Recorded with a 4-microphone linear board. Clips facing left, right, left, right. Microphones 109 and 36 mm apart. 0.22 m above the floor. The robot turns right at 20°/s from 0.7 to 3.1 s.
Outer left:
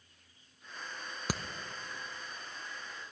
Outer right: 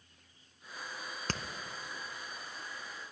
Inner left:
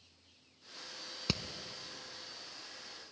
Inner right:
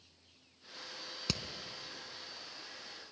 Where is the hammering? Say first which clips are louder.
Outer left 2 dB, inner left 2 dB; 10° left (ahead or behind), 0.8 m.